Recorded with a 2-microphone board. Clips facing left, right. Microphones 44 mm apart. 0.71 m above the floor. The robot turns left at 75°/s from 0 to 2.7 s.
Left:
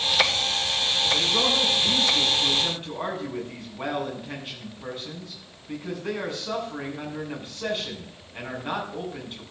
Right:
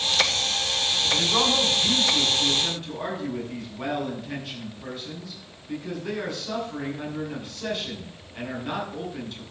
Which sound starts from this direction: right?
A man speaking, at 1.1 s.